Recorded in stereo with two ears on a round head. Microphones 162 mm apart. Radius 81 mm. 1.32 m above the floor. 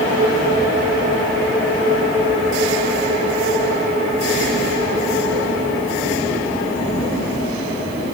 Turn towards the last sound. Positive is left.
No sound to turn to.